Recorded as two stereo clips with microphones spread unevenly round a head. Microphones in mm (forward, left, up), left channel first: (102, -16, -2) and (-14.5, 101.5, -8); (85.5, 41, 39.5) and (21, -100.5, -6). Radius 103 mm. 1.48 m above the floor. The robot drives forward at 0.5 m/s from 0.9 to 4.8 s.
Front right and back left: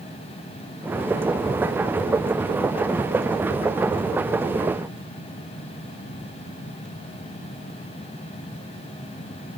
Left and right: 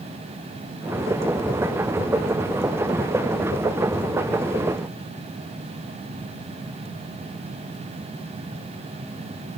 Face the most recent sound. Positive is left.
No sound to turn to.